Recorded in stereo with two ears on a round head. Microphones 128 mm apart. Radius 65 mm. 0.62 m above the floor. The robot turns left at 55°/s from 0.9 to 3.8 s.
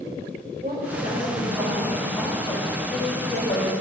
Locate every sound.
0.6 s a woman speaking: 120° right, 2.5 m; by 3.7 s 85° left, 2.5 m